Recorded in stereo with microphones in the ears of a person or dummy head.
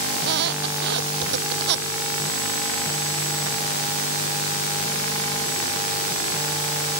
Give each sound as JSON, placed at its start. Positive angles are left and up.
{"t": 0.1, "sound": "a squeak", "side_deg": -60}